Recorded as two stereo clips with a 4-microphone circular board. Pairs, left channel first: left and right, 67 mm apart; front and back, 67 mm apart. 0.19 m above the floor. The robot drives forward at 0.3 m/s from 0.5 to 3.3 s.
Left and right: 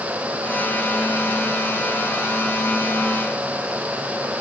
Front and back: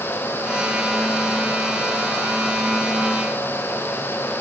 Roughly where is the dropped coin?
I don't hear a dropped coin.